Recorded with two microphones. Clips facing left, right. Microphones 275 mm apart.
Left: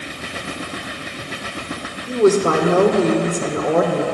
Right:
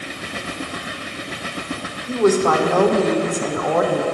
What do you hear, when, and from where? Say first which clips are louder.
2.1 s a woman speaking: left 2 dB; 25° left (ahead or behind), 1.0 m